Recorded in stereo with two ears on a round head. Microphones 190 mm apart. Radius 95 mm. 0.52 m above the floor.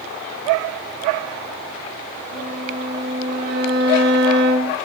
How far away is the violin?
About 4.5 m.